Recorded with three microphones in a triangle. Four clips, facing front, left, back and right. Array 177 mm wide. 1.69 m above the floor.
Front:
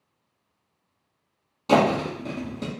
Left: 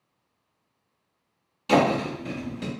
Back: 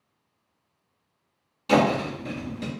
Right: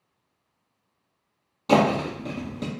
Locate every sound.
1.7 s a thud: 50° right, 1.3 m